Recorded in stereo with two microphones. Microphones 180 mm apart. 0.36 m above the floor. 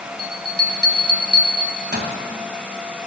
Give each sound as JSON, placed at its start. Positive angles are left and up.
{"t": 0.2, "sound": "a bell", "side_deg": -65, "distance_m": 1.7}